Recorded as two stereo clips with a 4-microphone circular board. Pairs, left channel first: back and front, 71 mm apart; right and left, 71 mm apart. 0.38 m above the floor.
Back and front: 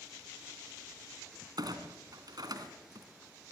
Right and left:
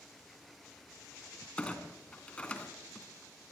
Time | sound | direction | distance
1.6 | a clunk | 20° right | 2.5 m